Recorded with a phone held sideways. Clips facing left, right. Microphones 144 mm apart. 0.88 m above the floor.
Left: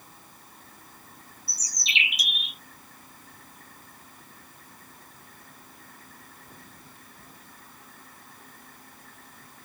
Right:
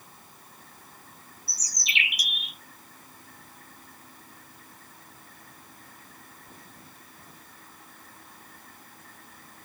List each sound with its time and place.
1.5 s a bird: 25° left (ahead or behind)